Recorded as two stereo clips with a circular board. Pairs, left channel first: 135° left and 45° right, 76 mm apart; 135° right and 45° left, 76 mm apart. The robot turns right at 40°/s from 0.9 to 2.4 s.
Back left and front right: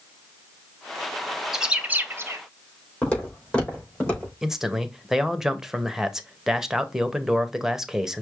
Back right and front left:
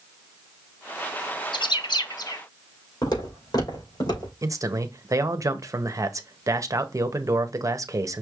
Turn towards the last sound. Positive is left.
turn(degrees=35)